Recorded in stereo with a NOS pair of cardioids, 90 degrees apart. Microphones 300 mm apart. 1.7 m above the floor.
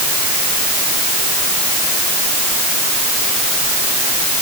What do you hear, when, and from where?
Only background noise.